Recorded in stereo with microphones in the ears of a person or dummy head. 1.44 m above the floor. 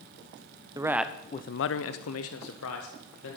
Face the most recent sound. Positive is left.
turn(degrees=65)  # may be behind; listen again after turning